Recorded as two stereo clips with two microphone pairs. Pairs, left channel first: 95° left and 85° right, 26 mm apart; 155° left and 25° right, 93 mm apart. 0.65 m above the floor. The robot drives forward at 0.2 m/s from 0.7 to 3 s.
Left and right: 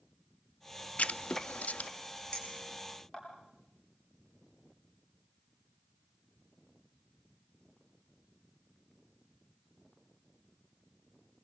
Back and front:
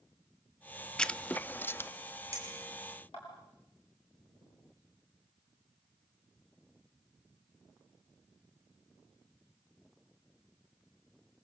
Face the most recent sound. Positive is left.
turn(degrees=155)